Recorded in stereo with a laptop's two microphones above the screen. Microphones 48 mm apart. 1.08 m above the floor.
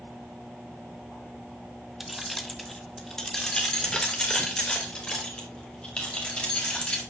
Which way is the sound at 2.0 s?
5° right (ahead or behind).